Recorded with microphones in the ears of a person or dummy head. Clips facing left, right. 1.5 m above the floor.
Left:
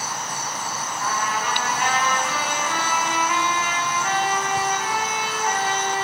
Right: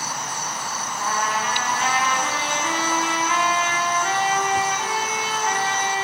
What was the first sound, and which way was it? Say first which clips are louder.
A trumpet: right 1 dB; 30° right (ahead or behind).